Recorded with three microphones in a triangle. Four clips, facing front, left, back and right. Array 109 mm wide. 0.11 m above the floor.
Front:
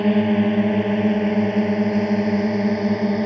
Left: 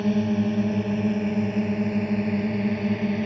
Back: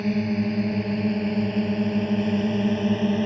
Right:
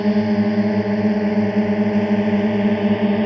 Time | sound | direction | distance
0.0 | a drone | 40° right | ?